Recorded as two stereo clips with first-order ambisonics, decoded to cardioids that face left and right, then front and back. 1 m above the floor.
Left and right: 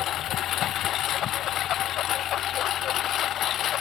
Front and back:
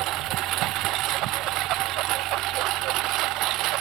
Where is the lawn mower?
140° left; by 3.8 s 145° left.